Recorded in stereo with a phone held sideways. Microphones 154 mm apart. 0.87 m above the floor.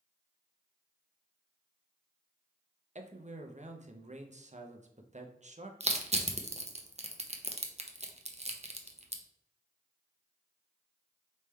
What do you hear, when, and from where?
3.0 s a man speaking: 50° right (ahead or behind), 0.7 m
5.8 s crushing: 45° right (ahead or behind), 0.6 m